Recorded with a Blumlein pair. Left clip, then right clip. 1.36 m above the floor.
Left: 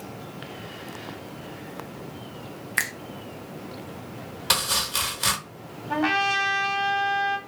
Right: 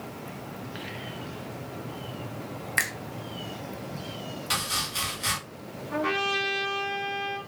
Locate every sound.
2.8 s a finger snap: 5° left, 0.6 m
4.5 s chopping: 40° left, 1.3 m
5.9 s a trumpet: 40° left, 1.4 m